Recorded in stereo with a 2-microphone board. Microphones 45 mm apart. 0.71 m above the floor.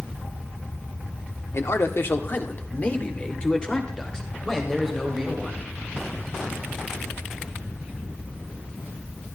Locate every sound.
1.5 s a man speaking: 65° left (ahead or behind), 1.6 m; by 5.6 s 5° left (ahead or behind), 4 m